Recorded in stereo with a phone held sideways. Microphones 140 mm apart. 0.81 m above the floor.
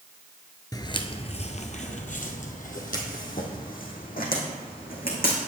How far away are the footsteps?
About 0.8 m.